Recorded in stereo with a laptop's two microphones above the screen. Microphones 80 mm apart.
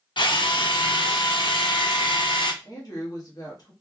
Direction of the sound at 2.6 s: 55° left (ahead or behind).